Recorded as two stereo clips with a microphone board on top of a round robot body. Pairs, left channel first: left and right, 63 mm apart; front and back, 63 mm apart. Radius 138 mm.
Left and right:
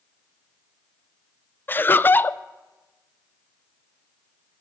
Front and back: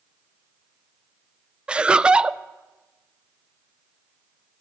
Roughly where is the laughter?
Behind left.